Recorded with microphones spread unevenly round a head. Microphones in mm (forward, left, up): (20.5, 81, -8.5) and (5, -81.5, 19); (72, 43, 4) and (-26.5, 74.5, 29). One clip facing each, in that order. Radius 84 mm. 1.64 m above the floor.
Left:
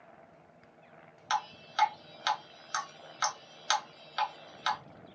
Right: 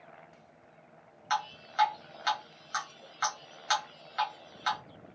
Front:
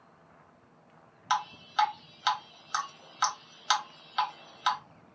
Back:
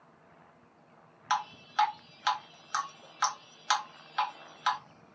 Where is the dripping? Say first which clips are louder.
Even, front 1 dB; 55° left, 1.4 m.